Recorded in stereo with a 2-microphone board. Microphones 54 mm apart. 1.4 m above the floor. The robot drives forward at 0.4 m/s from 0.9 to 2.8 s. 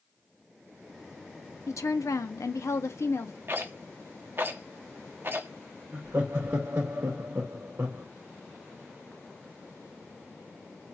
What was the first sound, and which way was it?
A woman speaking, 70° left (ahead or behind).